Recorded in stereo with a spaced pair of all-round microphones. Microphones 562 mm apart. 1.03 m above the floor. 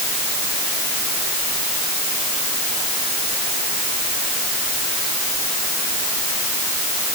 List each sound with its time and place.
Only background noise.